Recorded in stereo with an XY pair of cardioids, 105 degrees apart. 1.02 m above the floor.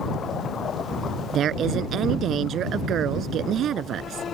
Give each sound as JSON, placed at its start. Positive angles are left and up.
{"t": 1.3, "sound": "a woman speaking", "azimuth_deg": -65}